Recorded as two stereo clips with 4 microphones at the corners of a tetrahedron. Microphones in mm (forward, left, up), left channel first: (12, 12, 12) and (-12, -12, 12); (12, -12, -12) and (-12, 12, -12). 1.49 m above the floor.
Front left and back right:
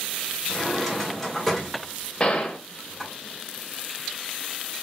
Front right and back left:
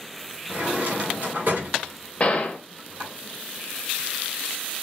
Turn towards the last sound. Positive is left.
turn(degrees=-5)